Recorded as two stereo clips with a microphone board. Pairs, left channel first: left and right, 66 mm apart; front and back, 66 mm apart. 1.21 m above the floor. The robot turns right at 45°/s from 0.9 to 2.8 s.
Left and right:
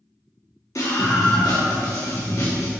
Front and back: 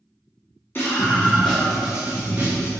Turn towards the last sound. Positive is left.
turn(degrees=140)